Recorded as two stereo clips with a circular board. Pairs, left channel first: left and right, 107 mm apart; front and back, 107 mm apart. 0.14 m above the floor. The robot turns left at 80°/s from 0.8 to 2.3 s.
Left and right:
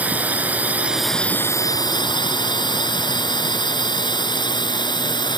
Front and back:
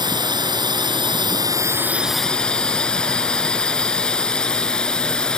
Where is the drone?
160° right; by 5.4 s 80° left.